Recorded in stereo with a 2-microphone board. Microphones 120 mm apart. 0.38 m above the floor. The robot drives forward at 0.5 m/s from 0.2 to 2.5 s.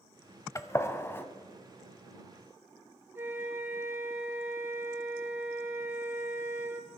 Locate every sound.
0.6 s a gunshot: 25° left (ahead or behind), 0.7 m; by 1.2 s 15° left (ahead or behind), 1.0 m
3.1 s a flute: 20° right (ahead or behind), 1.3 m